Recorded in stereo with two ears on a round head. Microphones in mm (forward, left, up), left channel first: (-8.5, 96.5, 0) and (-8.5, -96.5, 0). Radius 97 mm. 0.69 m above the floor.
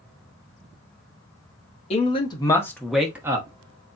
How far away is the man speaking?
About 1.2 m.